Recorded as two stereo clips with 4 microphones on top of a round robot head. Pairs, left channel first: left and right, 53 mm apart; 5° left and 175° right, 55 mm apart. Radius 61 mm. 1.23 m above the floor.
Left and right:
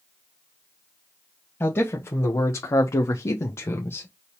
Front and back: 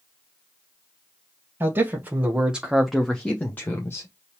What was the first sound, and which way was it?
A man speaking, 140° left.